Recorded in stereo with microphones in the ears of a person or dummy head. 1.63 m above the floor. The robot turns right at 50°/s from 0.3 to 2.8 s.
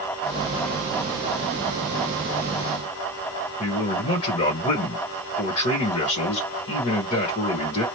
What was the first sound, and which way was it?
A man speaking, 45° left (ahead or behind).